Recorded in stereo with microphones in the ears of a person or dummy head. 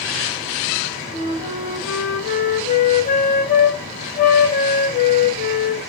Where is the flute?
45° left (ahead or behind), 1.6 m.